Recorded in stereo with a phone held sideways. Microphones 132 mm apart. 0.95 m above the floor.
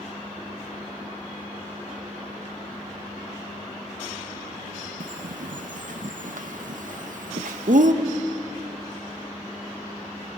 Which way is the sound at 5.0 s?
70° right (ahead or behind).